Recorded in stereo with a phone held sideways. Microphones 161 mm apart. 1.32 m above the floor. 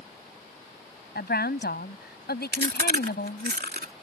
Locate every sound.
1.1 s a woman speaking: 80° left; by 3.5 s 85° left
2.5 s chewing: 85° right